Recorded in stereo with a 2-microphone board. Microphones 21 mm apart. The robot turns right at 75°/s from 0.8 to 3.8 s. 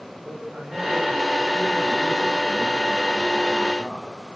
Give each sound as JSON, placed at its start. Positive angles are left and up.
{"t": 0.2, "sound": "a man speaking", "azimuth_deg": -85, "distance_m": 7.5}